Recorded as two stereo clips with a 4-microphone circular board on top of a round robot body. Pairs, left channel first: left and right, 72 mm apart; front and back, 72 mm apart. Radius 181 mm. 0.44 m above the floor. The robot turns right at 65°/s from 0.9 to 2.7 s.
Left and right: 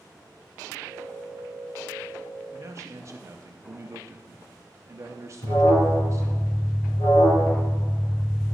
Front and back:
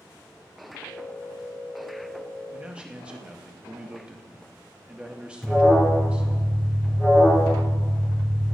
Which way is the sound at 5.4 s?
85° left.